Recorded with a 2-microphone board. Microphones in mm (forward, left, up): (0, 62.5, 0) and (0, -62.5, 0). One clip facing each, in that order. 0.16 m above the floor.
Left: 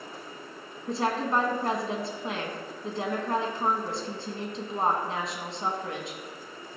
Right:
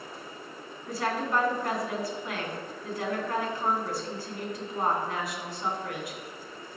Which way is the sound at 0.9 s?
25° left (ahead or behind).